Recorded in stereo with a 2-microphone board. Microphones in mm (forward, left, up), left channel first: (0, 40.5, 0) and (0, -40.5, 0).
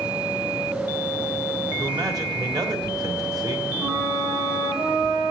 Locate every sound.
1.8 s a man speaking: 55° right (ahead or behind), 1.7 m
3.8 s a flute: 80° right, 5.5 m